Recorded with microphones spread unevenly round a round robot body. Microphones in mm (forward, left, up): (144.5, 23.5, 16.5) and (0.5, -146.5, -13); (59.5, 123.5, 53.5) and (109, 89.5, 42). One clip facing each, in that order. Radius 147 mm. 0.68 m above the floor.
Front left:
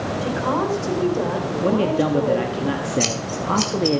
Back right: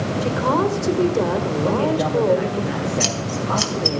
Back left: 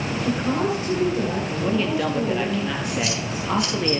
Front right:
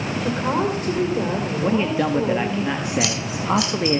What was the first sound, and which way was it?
A woman speaking, 90° right.